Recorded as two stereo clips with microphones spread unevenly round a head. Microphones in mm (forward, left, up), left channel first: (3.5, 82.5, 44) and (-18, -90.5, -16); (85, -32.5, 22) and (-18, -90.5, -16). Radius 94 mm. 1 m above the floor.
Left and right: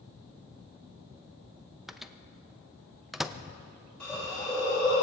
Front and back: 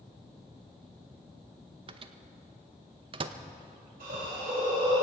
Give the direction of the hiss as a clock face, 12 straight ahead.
6 o'clock.